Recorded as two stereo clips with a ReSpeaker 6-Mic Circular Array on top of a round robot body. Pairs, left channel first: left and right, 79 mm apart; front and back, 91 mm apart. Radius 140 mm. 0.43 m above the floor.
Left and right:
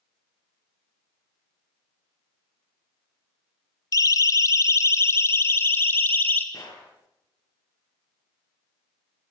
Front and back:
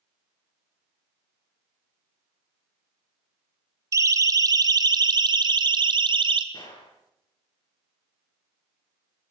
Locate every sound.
3.9 s a siren: 130° left, 2.5 m; by 6.4 s 155° left, 3.5 m
6.5 s a gunshot: 45° left, 9 m